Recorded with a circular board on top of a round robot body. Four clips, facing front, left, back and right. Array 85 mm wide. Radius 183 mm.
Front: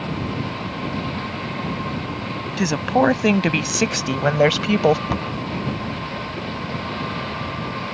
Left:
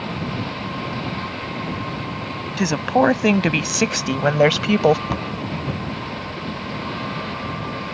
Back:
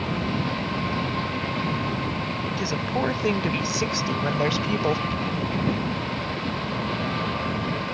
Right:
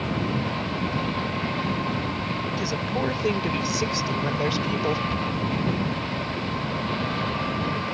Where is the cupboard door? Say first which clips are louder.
Left 1 dB, front 2 dB; 40° left.